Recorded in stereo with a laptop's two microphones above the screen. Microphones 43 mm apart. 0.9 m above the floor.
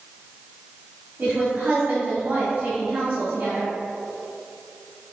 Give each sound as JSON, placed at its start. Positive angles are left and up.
{"t": 1.2, "sound": "a woman speaking", "side_deg": -30, "distance_m": 2.5}